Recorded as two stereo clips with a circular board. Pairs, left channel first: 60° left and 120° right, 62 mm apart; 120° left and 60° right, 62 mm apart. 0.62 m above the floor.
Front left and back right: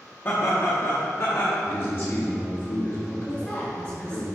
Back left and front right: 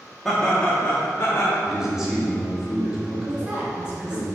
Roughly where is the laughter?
Ahead left.